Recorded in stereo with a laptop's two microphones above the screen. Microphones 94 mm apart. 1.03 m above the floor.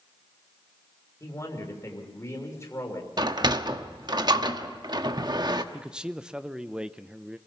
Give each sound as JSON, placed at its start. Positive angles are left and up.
{"t": 1.2, "sound": "a man speaking", "side_deg": 30, "distance_m": 3.0}
{"t": 3.2, "sound": "a sliding door", "side_deg": -45, "distance_m": 1.1}
{"t": 5.7, "sound": "a man speaking", "side_deg": -10, "distance_m": 0.6}